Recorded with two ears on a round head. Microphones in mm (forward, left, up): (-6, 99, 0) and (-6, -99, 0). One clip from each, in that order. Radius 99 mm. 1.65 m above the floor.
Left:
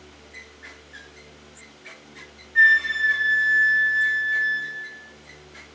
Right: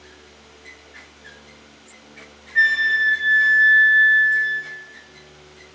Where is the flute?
20° right (ahead or behind), 3 m.